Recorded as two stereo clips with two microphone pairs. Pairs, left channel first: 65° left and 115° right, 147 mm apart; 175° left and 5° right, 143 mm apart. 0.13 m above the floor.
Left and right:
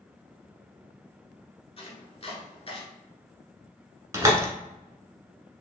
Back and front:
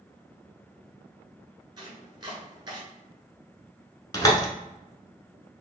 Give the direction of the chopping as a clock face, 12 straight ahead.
11 o'clock.